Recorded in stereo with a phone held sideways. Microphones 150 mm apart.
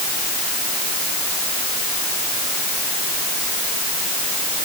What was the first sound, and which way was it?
Only background noise.